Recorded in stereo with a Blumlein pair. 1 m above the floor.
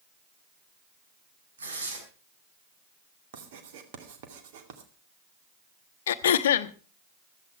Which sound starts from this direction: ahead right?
Writing, at 3.3 s.